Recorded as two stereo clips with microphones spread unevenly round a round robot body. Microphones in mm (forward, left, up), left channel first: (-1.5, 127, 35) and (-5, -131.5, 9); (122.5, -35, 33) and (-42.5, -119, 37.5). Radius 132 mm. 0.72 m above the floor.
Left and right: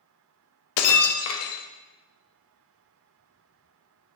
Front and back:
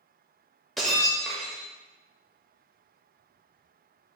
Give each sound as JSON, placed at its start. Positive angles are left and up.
{"t": 0.8, "sound": "breaking glass", "azimuth_deg": 115, "distance_m": 0.5}